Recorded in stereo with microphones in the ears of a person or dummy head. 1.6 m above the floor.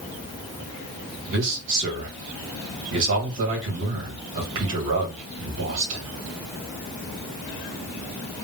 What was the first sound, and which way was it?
A man speaking, 65° right (ahead or behind).